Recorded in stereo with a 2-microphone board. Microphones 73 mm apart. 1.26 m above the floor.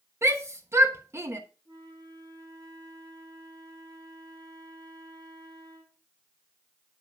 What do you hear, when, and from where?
0.2 s a shout: 35° right (ahead or behind), 1.1 m
1.6 s a flute: 75° right (ahead or behind), 2.5 m